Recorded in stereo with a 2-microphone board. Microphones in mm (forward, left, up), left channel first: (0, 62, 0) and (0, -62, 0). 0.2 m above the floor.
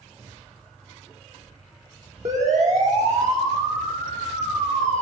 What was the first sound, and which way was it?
A siren, 65° right (ahead or behind).